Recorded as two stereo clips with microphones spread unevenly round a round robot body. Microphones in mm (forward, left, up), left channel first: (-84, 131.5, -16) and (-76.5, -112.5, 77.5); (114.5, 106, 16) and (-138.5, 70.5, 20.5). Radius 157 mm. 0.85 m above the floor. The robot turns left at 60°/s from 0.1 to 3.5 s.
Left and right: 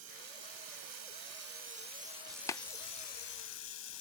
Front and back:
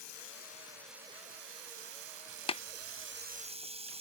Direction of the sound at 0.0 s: 35° right.